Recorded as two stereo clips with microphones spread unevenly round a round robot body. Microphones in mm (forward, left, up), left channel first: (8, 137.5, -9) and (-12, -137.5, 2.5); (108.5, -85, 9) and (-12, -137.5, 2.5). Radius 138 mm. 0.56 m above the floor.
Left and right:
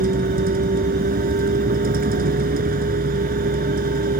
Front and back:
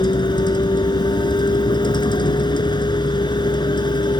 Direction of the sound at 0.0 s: 30° right.